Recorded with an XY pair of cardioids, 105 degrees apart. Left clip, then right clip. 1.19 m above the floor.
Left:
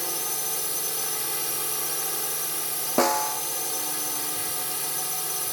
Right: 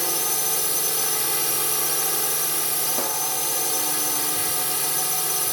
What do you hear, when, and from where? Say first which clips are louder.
0.0 s a drone: right 5 dB; 30° right
3.0 s a snare drum: left 4 dB; 60° left